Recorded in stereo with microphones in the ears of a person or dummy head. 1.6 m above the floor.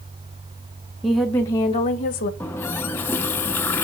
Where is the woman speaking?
5° right (ahead or behind), 1.2 m; by 2.3 s 50° left (ahead or behind), 1.4 m.